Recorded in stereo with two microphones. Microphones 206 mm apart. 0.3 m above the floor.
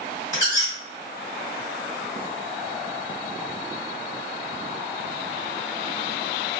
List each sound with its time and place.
0.3 s a squeak: 20° left (ahead or behind), 1.5 m